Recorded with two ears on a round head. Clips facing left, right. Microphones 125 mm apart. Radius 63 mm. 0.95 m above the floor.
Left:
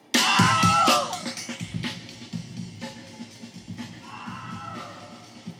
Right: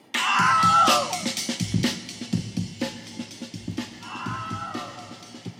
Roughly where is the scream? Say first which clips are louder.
Left 1 dB; left.